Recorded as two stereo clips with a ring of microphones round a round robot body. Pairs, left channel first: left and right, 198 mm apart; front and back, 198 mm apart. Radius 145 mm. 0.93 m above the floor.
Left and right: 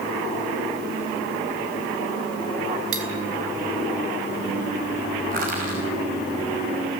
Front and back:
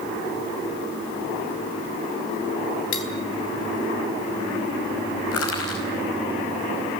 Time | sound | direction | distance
2.9 | cutlery clinking | 45° right | 1.5 m
5.3 | crushing | 30° right | 5.5 m